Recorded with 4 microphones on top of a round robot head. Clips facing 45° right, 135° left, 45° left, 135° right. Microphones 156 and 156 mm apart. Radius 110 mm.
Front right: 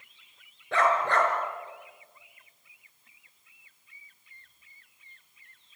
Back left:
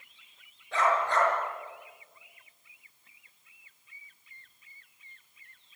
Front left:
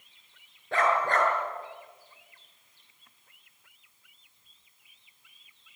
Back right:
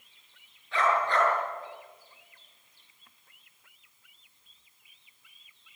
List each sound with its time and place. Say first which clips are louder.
0.7 s a dog barking: front right 2 dB, front left 1 dB; 5° right, 5 m